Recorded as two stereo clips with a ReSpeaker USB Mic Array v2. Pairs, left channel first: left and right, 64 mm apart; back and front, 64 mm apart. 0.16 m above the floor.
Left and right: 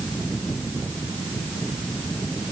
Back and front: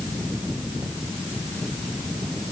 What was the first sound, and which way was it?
Only background noise.